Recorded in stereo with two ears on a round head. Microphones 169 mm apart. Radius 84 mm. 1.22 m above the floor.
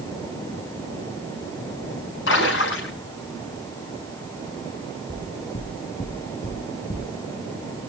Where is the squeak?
I don't hear a squeak.